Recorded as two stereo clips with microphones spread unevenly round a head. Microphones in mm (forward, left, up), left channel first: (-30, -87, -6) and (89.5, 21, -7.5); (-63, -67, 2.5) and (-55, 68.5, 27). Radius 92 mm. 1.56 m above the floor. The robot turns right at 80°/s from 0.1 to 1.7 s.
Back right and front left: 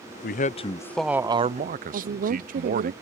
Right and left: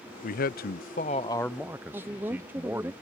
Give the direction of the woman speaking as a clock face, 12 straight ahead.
12 o'clock.